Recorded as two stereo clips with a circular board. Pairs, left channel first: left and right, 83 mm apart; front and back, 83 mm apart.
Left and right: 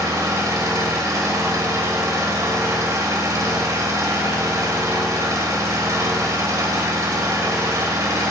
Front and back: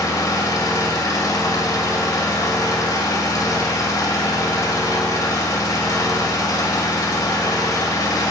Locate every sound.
0.0 s an engine running: 40° right, 2 m